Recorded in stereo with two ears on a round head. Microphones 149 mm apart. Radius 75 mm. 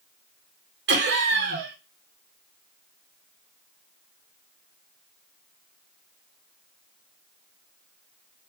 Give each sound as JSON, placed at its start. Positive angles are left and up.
{"t": 0.9, "sound": "laughter", "side_deg": -75, "distance_m": 0.8}